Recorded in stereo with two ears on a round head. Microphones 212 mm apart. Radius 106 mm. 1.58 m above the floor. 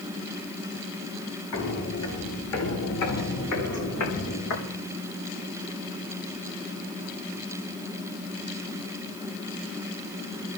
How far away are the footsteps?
About 8 m.